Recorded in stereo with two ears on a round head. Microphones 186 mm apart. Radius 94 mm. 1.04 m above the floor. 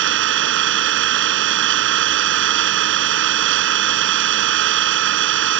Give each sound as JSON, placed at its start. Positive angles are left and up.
{"t": 0.0, "sound": "an engine running", "side_deg": -65}